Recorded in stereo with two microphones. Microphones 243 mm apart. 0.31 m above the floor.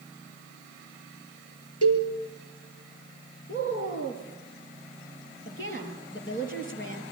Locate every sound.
1.8 s a cowbell: 80° left, 3.5 m
3.5 s a woman speaking: 55° left (ahead or behind), 5.5 m